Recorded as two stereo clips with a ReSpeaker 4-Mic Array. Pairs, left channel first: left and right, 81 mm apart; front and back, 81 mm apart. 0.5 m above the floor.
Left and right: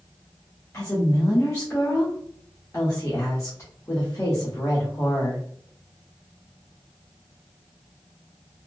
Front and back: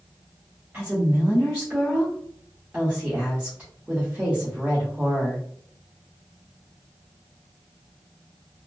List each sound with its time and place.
0.7 s a woman speaking: 120° left, 1.0 m